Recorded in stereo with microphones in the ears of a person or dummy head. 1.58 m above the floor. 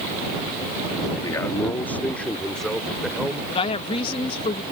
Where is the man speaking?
25° left (ahead or behind); by 3.4 s centre (ahead or behind).